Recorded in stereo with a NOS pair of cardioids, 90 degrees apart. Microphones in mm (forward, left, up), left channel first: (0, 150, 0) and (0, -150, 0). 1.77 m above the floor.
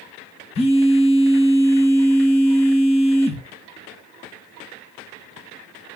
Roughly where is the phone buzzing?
Ahead.